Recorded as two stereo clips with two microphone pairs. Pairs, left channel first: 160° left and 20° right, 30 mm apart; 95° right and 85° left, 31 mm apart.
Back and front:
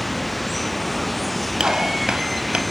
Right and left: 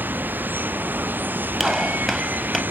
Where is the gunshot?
5° right.